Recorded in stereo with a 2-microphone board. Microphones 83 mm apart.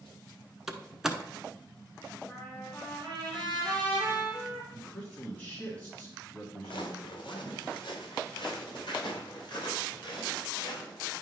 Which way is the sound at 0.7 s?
5° right (ahead or behind).